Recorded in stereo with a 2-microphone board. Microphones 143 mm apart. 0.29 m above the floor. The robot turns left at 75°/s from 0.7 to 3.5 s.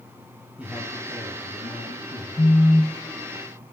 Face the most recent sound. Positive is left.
turn(degrees=-45)  # may be behind; listen again after turning